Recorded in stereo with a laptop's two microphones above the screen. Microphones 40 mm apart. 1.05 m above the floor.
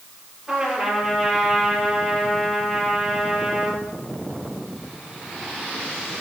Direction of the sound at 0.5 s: 15° right (ahead or behind).